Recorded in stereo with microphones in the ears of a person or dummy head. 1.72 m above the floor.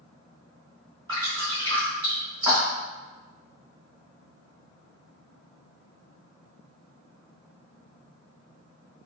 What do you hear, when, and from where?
1.1 s dripping: 25° right (ahead or behind), 1.9 m